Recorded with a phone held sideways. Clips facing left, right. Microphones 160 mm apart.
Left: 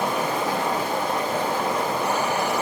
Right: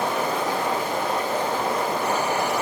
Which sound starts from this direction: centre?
Running water, at 0.0 s.